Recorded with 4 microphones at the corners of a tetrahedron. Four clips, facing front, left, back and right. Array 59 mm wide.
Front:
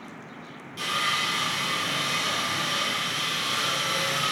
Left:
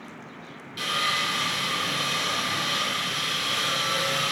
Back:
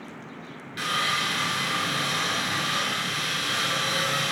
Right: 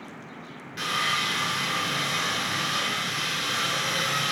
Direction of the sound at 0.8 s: 165° right.